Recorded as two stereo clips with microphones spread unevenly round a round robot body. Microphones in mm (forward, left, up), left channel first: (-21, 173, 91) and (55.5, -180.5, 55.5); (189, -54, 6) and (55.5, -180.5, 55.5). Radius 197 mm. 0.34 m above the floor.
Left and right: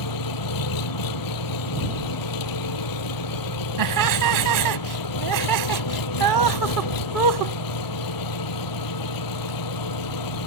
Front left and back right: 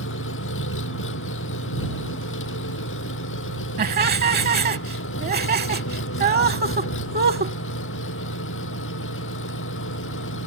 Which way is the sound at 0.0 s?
70° left.